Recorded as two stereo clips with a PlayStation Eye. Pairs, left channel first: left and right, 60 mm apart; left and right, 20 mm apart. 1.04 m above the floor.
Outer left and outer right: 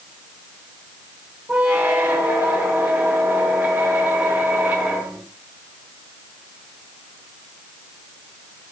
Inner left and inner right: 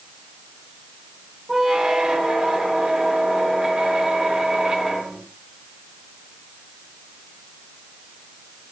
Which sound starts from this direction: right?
A squeak, at 1.5 s.